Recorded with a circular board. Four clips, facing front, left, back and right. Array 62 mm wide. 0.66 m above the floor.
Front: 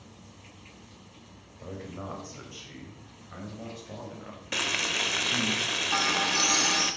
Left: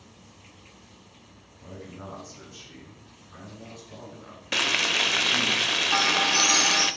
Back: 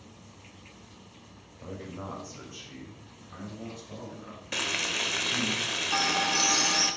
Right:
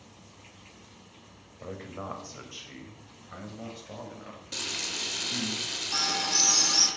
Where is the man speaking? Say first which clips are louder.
Right 3 dB, even; 80° right, 3.5 m; by 5.5 s 45° right, 5.5 m.